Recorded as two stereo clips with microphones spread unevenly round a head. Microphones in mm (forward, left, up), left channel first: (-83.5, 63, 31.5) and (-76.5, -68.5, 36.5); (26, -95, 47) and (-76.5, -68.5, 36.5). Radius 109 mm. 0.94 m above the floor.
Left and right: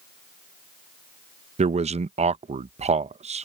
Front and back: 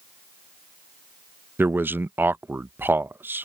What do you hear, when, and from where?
1.6 s a man speaking: 125° right